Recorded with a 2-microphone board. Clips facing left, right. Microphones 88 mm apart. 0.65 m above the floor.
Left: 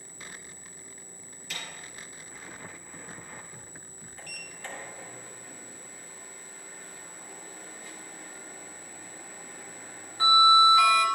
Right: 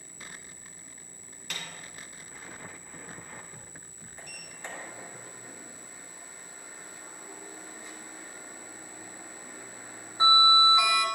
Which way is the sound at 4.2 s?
20° right (ahead or behind).